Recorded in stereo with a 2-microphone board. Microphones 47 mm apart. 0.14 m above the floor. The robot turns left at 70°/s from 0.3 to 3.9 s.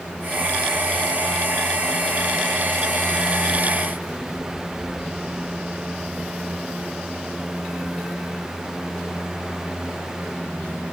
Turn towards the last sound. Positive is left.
No sound to turn to.